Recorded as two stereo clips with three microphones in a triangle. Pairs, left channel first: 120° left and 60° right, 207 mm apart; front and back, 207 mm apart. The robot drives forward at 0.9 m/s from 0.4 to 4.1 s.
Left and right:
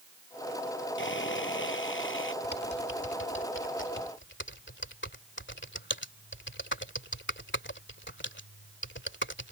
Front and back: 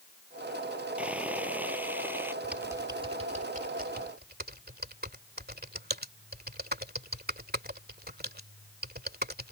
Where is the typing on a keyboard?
95° left; by 9.5 s 140° left.